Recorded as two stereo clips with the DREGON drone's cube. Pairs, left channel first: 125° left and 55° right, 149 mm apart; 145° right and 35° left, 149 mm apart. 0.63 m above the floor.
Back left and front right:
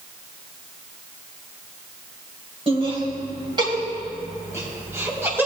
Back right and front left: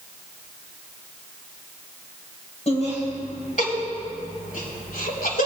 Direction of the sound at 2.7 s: 105° right.